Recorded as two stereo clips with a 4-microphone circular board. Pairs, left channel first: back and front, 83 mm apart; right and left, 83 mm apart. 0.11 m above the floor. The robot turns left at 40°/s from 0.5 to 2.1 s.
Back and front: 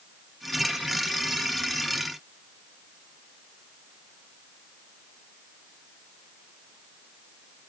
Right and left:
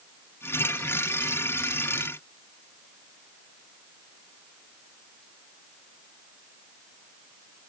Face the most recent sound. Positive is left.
No sound to turn to.